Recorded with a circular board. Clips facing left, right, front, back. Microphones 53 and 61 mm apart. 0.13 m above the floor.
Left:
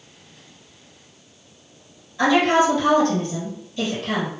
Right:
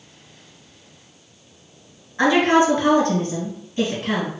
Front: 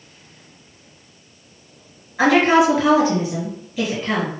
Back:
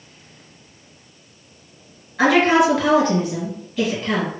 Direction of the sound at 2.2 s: 70° right.